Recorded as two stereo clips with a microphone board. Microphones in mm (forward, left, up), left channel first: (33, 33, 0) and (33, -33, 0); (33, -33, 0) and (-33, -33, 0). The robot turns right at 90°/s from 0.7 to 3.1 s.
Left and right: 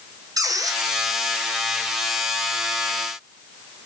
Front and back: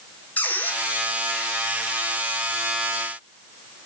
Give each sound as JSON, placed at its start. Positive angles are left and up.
{"t": 0.4, "sound": "a squeak", "azimuth_deg": -65, "distance_m": 3.5}